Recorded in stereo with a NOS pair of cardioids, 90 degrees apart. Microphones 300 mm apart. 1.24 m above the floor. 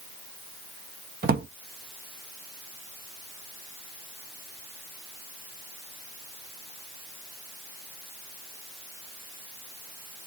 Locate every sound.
1.2 s a drawer: 30° right, 1.0 m